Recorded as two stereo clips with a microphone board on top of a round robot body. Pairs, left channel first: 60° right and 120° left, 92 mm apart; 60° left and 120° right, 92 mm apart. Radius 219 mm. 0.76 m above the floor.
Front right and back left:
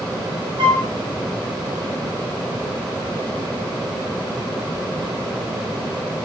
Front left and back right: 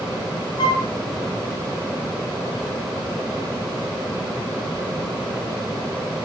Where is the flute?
90° left, 0.7 m.